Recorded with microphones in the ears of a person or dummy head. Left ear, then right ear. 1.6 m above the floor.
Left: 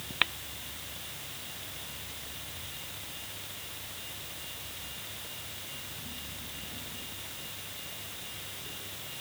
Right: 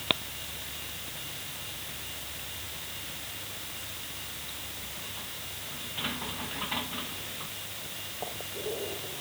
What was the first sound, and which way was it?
Only background noise.